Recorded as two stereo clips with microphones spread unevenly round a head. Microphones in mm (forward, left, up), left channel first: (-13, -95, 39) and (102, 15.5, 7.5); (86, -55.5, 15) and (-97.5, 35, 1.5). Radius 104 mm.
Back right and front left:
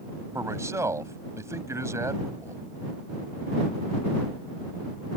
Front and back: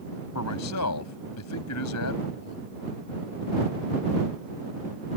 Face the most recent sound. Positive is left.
turn(degrees=-30)